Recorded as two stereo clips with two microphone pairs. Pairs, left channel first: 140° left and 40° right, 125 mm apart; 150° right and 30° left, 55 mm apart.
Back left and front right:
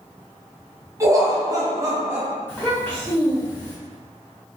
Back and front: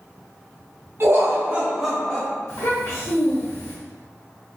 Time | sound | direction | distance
1.0 | laughter | 20° left | 0.8 m
2.5 | a child speaking | 140° right | 1.1 m